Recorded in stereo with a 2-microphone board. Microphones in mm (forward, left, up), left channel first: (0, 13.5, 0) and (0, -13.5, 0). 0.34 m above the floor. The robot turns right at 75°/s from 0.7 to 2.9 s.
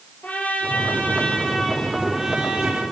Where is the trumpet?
80° left, 6.5 m; by 2.8 s 120° right, 6.5 m.